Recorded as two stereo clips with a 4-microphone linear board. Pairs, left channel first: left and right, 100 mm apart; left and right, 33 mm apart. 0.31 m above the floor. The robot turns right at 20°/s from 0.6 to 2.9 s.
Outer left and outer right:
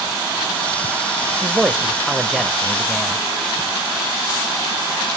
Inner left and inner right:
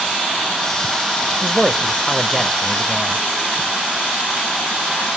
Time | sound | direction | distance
1.4 | a man speaking | 10° right (ahead or behind) | 1.3 m